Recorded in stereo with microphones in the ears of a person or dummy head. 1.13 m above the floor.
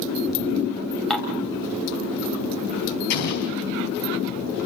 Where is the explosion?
60° left (ahead or behind), 4.5 m.